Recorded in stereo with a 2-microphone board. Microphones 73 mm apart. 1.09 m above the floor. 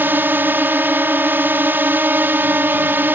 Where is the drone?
30° right (ahead or behind).